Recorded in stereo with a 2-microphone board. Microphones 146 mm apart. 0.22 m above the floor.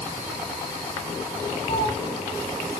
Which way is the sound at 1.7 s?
25° left (ahead or behind).